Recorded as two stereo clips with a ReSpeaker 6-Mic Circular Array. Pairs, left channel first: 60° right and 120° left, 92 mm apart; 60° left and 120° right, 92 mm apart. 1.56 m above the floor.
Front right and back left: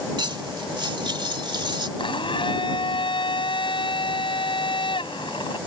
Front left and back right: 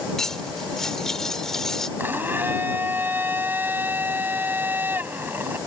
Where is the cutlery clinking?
145° left.